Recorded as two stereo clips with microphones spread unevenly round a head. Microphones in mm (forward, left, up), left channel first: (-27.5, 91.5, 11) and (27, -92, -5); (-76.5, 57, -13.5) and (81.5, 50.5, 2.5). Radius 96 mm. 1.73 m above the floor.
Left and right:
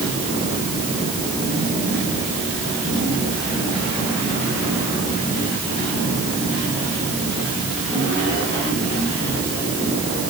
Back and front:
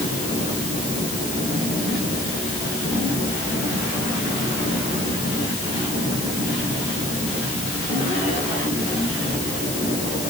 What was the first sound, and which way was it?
Only background noise.